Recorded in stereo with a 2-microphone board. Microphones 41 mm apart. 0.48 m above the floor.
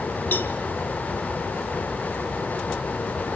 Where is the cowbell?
55° left (ahead or behind), 1.2 m.